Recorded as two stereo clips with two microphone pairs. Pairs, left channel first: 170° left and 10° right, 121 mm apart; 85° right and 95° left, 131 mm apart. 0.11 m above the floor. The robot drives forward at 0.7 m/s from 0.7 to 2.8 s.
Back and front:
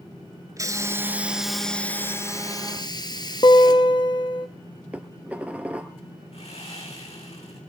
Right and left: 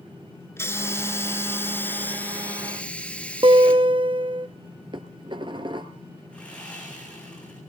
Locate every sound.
0.6 s a hiss: 35° right, 1.2 m; by 3.9 s 160° right, 1.4 m
3.4 s a guitar: 135° left, 1.2 m
4.9 s dishes clattering: 65° left, 1.6 m
6.3 s sawing: 165° right, 6.5 m